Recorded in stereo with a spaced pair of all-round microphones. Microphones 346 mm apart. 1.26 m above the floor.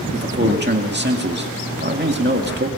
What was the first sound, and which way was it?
A man speaking, 30° right (ahead or behind).